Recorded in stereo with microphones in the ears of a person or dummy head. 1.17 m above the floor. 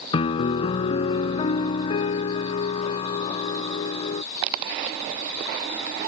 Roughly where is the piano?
Left.